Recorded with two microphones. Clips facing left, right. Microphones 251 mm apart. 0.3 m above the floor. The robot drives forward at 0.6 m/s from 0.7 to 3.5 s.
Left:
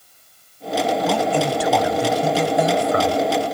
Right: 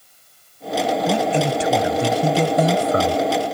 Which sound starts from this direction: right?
A man speaking, at 1.1 s.